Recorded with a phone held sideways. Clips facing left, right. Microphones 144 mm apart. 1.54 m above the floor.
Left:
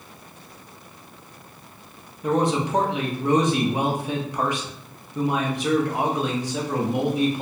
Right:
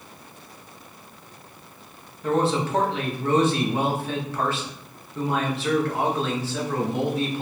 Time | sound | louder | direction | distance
2.2 | a man speaking | left 1 dB | 15° left (ahead or behind) | 0.6 m